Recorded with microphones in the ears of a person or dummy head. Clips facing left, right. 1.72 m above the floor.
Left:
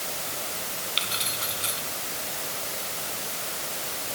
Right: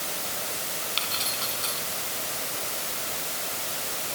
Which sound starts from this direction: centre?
Keys jangling, at 1.0 s.